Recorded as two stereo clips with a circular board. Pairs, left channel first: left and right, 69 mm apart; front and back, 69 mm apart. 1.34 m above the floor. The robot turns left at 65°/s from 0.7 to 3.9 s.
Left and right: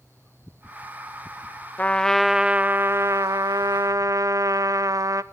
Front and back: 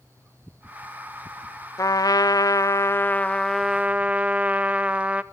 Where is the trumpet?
25° left, 0.8 m; by 5.2 s 110° right, 0.8 m.